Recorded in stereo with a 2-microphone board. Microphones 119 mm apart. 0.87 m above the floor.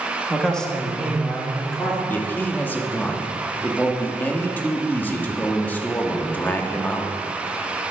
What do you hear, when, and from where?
0.3 s a man speaking: 5° left (ahead or behind), 1.6 m
2.1 s a man speaking: 15° left (ahead or behind), 1.2 m